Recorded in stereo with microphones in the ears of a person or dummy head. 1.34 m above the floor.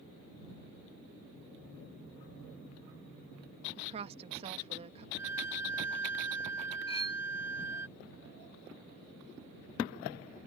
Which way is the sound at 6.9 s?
35° left (ahead or behind).